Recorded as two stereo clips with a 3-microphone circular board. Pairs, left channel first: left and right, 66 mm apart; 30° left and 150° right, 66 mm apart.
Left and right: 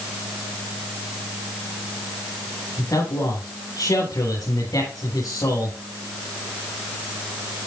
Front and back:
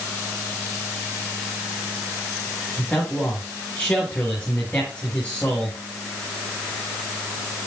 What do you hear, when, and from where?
2.8 s a man speaking: 105° left, 9 m